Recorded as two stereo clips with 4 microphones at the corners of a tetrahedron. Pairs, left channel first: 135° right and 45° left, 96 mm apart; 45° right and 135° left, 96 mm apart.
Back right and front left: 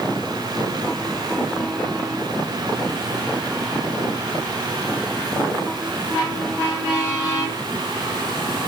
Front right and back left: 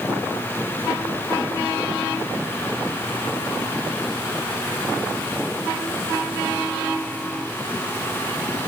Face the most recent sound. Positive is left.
No sound to turn to.